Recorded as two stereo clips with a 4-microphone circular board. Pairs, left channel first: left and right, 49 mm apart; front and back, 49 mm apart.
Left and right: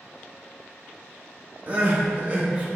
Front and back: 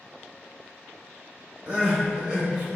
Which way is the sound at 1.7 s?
125° right.